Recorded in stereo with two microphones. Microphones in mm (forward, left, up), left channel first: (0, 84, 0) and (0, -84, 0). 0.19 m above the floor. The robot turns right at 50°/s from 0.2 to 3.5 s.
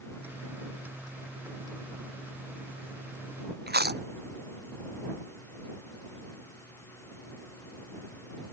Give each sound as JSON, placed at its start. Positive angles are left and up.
{"t": 3.7, "sound": "chewing", "side_deg": -80}